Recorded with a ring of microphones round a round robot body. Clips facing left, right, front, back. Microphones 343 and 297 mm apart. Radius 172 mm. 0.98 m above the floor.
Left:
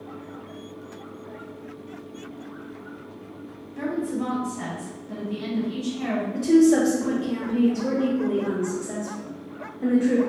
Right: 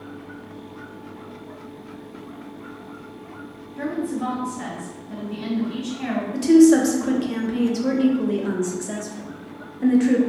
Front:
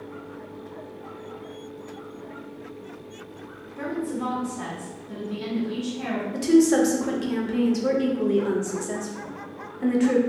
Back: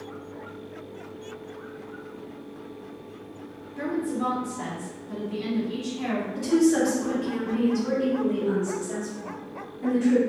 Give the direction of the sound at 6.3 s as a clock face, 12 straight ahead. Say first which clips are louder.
Right 4 dB, front 3 dB; 1 o'clock.